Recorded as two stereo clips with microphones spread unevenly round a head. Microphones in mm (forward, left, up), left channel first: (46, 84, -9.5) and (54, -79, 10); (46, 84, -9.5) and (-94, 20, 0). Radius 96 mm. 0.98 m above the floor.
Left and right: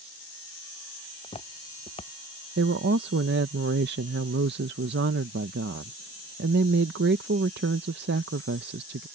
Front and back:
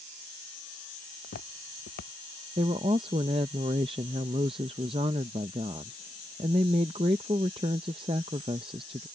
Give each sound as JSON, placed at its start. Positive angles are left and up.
{"t": 1.2, "sound": "footsteps", "azimuth_deg": 40}
{"t": 2.6, "sound": "a woman speaking", "azimuth_deg": -90}